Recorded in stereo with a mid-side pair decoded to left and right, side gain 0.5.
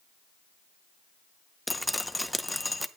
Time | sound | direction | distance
1.7 | dripping | 5° left | 0.8 m